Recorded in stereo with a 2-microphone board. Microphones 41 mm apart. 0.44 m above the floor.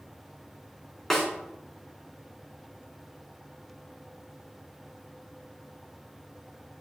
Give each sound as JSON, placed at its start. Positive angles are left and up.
{"t": 1.1, "sound": "a snare drum", "side_deg": 10, "distance_m": 2.5}